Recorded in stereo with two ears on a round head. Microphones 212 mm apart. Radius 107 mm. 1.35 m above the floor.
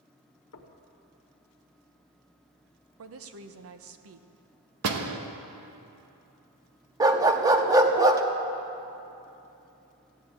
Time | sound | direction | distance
0.5 | knocking | 60° left (ahead or behind) | 1.4 m
3.0 | a woman speaking | 60° right (ahead or behind) | 0.9 m
4.8 | a door slam | 60° right (ahead or behind) | 1.1 m
7.0 | a dog barking | 15° right (ahead or behind) | 0.8 m